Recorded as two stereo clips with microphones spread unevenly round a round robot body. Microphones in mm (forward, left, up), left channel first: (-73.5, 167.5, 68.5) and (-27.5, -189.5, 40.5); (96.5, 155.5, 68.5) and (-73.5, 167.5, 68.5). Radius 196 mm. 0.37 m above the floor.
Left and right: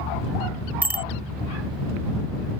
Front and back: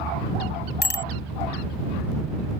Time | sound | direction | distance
0.8 | a bicycle bell | straight ahead | ?